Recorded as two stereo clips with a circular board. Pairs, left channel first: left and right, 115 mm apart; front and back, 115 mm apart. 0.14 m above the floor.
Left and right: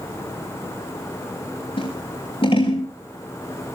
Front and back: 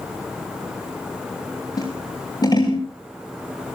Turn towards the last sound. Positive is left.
turn(degrees=50)